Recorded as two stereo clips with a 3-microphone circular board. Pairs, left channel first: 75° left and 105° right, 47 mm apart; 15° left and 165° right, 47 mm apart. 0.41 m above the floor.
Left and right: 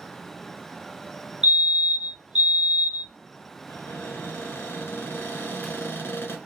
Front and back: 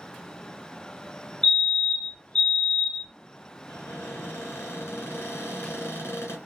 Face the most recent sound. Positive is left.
turn(degrees=40)